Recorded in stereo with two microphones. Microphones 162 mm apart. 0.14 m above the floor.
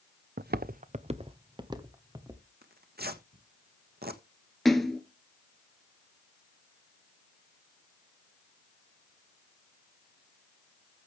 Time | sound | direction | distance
0.4 | footsteps | 80° right | 0.6 m
2.6 | tearing paper | 80° right | 1.4 m
4.7 | a splash | centre (ahead or behind) | 1.5 m